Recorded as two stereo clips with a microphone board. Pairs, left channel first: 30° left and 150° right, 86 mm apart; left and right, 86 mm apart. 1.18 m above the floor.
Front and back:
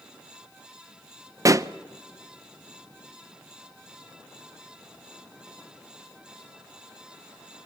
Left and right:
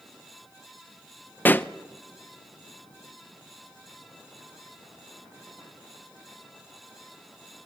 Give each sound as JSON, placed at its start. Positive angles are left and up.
{"t": 1.4, "sound": "a pop", "azimuth_deg": 160, "distance_m": 0.5}